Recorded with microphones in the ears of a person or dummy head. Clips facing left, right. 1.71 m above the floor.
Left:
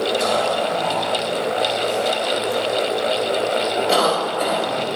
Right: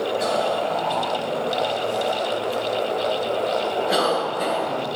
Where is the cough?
65° left (ahead or behind), 3.5 m.